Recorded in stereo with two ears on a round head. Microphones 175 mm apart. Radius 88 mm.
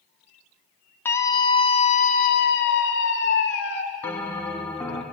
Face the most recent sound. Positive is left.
turn(degrees=10)  # may be behind; listen again after turning